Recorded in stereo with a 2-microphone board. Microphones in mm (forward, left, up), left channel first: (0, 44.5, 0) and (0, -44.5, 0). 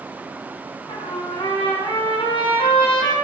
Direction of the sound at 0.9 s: 70° left (ahead or behind).